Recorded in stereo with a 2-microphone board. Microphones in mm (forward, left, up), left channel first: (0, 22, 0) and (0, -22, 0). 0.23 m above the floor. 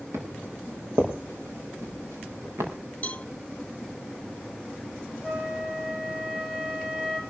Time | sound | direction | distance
0.1 | footsteps | 80° right | 6.5 m
3.0 | a cowbell | 30° left (ahead or behind) | 1.2 m
5.2 | a flute | 20° right (ahead or behind) | 7.5 m